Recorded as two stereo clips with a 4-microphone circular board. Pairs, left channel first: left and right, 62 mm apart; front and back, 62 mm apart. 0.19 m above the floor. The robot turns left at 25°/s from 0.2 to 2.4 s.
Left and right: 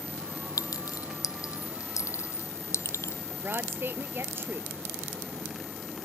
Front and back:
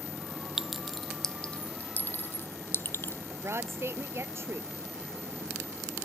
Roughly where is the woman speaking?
Behind right.